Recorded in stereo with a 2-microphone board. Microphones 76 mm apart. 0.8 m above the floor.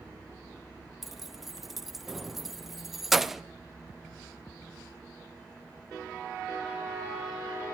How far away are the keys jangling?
About 0.6 m.